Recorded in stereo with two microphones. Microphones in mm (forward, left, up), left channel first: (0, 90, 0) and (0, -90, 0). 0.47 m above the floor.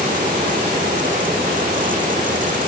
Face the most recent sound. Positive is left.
No sound to turn to.